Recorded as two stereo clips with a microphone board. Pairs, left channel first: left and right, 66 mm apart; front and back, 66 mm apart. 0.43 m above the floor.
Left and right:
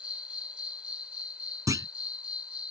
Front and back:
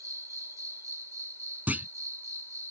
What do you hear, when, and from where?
0.0 s an insect: 160° right
1.7 s a clunk: 115° right